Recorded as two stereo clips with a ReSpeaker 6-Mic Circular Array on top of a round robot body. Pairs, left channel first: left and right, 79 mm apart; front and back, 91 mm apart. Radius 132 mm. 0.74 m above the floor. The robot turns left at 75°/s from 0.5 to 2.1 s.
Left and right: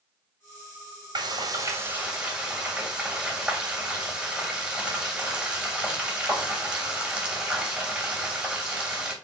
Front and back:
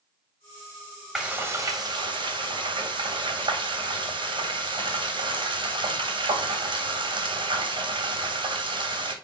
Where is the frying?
95° right, 3 m; by 9.1 s 165° right, 3 m.